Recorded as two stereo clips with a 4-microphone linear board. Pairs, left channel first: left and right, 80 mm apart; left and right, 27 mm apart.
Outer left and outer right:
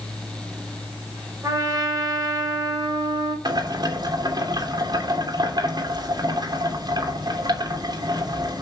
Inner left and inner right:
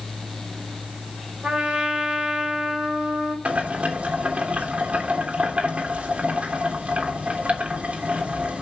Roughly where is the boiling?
Right.